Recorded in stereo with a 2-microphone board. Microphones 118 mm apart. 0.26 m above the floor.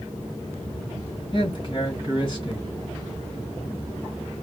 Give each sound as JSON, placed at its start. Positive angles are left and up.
{"t": 1.3, "sound": "a man speaking", "side_deg": 40, "distance_m": 1.9}